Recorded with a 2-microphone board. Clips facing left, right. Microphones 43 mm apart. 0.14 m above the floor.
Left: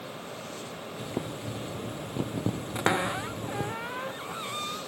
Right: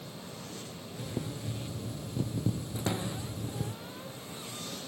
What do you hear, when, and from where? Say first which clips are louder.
1.0 s boiling: left 3 dB; 45° left (ahead or behind)
2.8 s a cupboard door: left 8 dB; 70° left (ahead or behind)